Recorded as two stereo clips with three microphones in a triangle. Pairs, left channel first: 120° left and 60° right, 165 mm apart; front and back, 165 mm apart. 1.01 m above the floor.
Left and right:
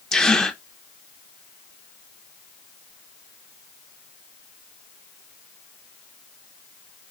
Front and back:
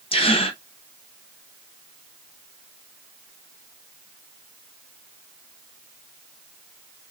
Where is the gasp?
35° left, 0.6 m.